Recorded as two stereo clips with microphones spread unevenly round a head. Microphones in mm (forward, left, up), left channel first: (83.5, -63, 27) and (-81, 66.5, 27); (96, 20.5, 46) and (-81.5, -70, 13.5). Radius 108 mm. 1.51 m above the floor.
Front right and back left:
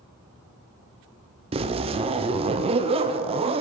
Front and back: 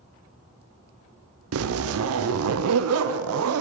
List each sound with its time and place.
1.5 s a zipper: 155° right, 0.5 m